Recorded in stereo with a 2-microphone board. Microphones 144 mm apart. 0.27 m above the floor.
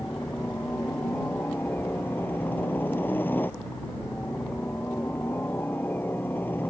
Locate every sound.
0.0 s a helicopter: 15° left (ahead or behind)